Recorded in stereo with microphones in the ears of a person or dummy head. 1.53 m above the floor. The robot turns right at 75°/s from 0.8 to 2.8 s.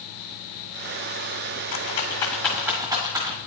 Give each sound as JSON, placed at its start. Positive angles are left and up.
{"t": 1.7, "sound": "a rattle", "side_deg": 40, "distance_m": 1.3}